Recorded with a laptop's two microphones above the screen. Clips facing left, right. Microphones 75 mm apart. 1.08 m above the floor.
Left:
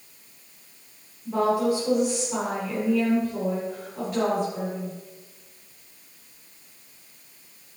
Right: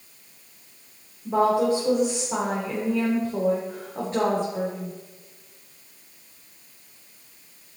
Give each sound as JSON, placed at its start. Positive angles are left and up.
{"t": 1.2, "sound": "a woman speaking", "side_deg": -35, "distance_m": 3.0}